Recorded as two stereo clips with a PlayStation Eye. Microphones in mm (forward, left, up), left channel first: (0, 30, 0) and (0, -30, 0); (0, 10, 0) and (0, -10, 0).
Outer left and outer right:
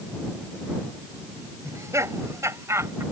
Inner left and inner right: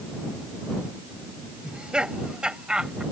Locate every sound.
1.6 s laughter: 60° right (ahead or behind); by 3.0 s 55° right (ahead or behind)